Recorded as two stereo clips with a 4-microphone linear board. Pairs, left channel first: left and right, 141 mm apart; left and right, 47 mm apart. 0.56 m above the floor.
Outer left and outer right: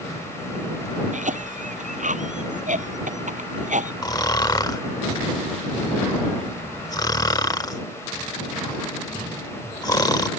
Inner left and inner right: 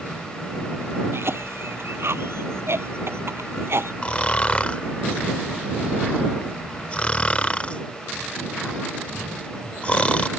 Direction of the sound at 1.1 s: 60° right (ahead or behind).